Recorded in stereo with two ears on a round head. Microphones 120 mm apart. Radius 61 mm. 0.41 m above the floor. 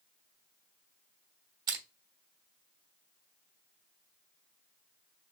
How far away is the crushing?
About 1.1 m.